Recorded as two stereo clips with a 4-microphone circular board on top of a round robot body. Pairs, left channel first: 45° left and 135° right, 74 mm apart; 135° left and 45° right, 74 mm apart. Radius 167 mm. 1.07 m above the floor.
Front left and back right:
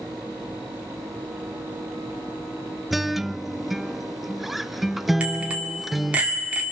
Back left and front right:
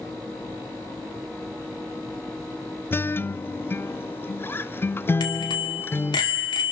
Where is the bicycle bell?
150° left, 2 m.